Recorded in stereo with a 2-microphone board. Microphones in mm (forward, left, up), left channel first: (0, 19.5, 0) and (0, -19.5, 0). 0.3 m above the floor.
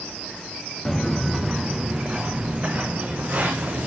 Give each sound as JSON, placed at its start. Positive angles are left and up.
{"t": 0.8, "sound": "footsteps", "side_deg": 10, "distance_m": 1.4}